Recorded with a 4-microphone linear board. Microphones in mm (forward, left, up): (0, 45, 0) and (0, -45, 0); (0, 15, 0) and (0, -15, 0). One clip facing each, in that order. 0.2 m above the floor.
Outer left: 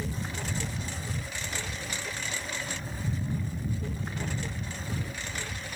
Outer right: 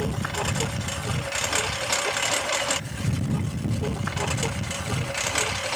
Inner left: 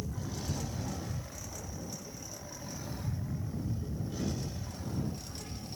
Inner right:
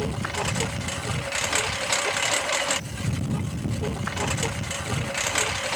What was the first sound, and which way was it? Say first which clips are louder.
A lawn mower: outer right 8 dB, inner right 13 dB; 65° right (ahead or behind).